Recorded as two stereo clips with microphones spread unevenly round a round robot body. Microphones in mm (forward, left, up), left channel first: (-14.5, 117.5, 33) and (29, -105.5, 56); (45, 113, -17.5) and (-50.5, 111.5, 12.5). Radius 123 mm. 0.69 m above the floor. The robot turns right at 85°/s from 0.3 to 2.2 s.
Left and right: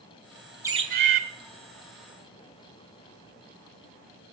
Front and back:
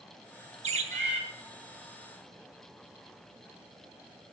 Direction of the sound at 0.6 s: 160° right.